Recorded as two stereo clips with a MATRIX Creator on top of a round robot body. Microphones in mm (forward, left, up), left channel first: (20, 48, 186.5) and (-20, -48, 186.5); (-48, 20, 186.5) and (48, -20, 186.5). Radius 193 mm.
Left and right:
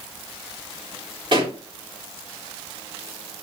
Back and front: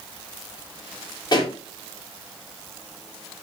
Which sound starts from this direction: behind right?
A pop, at 1.3 s.